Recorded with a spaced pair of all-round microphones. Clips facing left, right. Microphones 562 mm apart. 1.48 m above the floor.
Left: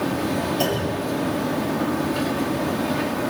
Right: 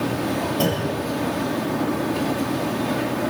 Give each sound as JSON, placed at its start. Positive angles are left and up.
{"t": 0.6, "sound": "a clunk", "side_deg": -75, "distance_m": 8.0}